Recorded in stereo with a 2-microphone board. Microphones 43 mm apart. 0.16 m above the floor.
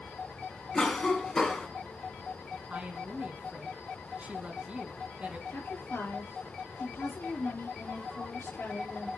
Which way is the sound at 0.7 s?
15° left (ahead or behind).